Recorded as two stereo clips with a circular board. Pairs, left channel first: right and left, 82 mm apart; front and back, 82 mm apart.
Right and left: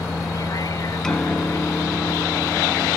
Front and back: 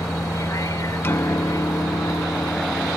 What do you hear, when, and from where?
0.0 s a vehicle: 50° right; by 3.0 s 45° right
1.0 s a piano: 15° right